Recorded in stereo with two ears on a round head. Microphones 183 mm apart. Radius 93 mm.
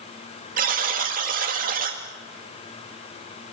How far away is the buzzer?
About 2.5 m.